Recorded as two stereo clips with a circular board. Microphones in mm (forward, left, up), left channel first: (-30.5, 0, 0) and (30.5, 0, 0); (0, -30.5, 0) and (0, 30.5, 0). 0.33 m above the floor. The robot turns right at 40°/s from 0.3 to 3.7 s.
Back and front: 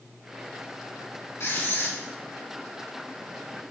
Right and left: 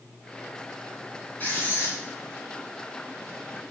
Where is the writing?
145° right, 2 m; by 2.0 s 120° right, 2 m.